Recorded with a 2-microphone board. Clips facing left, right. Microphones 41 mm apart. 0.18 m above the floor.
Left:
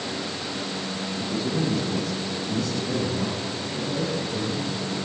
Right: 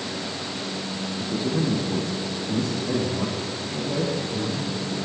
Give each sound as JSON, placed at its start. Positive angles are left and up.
{"t": 1.2, "sound": "a man speaking", "side_deg": -30, "distance_m": 9.5}